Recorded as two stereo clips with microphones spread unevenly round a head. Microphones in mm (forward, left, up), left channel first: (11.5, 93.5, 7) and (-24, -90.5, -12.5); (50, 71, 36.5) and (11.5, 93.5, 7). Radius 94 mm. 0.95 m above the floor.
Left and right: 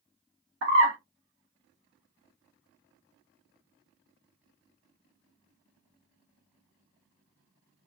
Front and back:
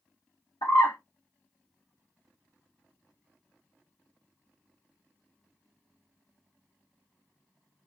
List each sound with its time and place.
0.6 s a bird: 85° right, 1.0 m